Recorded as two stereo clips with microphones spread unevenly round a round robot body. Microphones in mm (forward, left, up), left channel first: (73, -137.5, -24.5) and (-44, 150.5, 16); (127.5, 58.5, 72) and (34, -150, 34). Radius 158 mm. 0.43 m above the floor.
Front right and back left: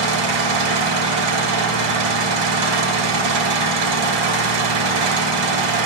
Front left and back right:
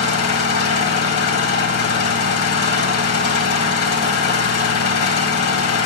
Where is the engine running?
105° left, 2.5 m.